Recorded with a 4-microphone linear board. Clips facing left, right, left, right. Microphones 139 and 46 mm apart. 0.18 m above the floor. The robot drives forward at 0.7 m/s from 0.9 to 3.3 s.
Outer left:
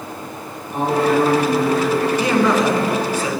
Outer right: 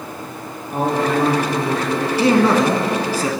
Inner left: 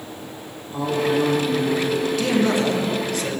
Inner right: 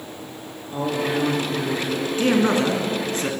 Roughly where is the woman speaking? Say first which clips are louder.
Outer left 2 dB, inner left 3 dB; right.